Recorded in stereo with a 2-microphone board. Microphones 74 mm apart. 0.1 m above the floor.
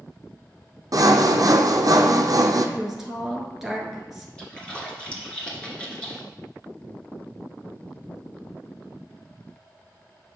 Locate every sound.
0.9 s sawing: 55° right (ahead or behind), 0.7 m
2.8 s a woman speaking: 5° right (ahead or behind), 1.2 m
4.4 s a splash: 15° left (ahead or behind), 1.6 m